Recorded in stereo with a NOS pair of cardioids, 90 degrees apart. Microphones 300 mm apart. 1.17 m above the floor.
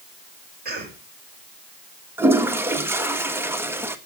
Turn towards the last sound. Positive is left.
turn(degrees=-5)